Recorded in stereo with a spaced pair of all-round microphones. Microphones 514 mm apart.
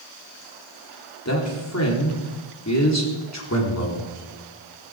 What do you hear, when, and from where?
1.2 s a man speaking: 30° left (ahead or behind), 4 m